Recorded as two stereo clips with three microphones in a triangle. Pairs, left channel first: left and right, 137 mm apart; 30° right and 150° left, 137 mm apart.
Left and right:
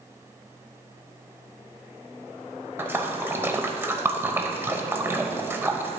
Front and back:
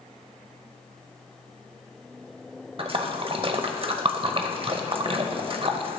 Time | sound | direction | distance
2.8 | a splash | 165° right | 0.7 m